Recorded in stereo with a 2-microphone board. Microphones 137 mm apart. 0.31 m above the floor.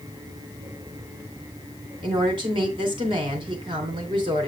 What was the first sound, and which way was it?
A woman speaking, 40° right (ahead or behind).